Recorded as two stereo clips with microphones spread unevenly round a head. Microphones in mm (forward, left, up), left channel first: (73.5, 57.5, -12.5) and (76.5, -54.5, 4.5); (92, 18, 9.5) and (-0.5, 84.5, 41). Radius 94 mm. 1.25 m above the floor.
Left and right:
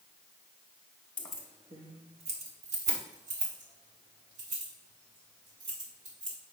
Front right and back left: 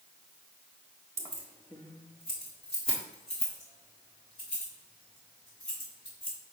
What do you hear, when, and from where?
1.2 s keys jangling: 175° left, 0.6 m; by 6.3 s 90° right, 4.5 m